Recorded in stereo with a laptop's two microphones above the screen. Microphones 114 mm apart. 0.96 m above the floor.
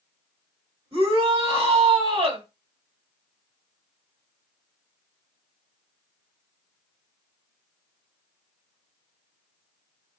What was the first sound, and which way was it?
A shout, 55° right (ahead or behind).